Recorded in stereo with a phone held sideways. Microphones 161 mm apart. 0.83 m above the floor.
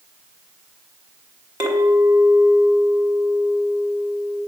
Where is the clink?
25° right (ahead or behind), 1.9 m.